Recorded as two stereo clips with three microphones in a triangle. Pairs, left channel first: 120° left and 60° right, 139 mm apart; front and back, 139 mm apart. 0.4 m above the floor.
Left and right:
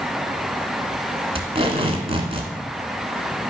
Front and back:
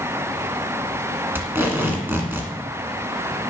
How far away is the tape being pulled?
About 1.3 m.